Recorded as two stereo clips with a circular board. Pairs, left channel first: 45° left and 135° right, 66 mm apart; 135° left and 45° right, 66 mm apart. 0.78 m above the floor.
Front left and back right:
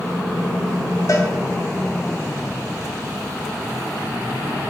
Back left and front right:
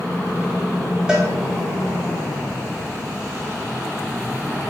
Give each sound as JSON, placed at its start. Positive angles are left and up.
{"t": 1.1, "sound": "a cowbell", "azimuth_deg": 30, "distance_m": 1.9}